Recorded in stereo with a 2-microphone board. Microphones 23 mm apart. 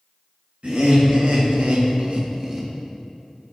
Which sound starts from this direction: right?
Laughter, at 0.6 s.